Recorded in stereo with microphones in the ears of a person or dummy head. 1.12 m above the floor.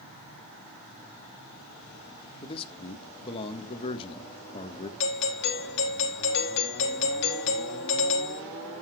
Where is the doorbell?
60° left (ahead or behind), 2.5 m.